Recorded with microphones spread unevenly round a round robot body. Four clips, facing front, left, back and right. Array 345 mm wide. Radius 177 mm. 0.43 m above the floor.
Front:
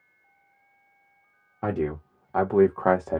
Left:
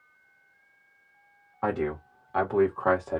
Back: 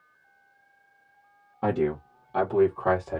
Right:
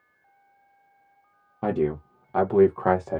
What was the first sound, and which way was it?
A man speaking, 110° right.